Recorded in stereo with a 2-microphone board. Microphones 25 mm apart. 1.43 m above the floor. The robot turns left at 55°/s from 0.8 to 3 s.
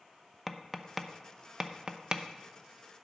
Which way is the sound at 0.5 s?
Centre (ahead or behind).